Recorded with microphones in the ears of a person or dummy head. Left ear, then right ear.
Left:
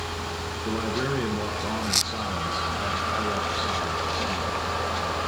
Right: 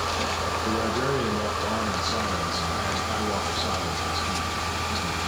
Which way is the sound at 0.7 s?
Centre (ahead or behind).